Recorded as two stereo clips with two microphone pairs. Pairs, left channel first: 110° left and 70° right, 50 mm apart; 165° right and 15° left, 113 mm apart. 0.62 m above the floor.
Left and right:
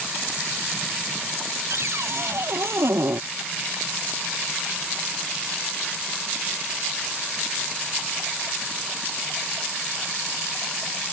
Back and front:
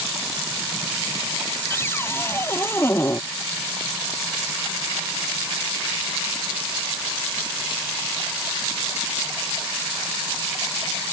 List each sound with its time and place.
1.7 s a cupboard door: 95° right